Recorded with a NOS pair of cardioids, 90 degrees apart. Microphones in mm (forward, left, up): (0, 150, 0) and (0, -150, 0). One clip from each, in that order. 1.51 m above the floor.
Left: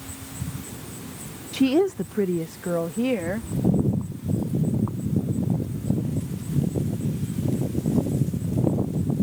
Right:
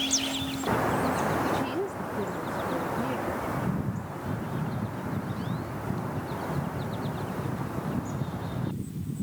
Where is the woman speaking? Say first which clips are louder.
Left 8 dB; 65° left; by 3.5 s 75° left.